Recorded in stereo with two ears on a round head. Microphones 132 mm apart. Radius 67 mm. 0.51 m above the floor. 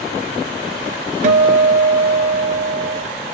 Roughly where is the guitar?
Right.